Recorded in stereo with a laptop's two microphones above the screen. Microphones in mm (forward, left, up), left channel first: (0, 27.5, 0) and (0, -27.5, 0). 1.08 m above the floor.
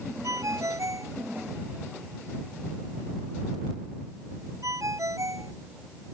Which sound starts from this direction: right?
A ringtone, at 0.2 s.